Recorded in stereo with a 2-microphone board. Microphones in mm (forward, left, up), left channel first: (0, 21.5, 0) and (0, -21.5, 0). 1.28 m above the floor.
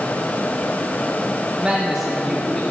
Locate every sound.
1.6 s a man speaking: 20° right (ahead or behind), 1.6 m; by 2.6 s 10° left (ahead or behind), 2 m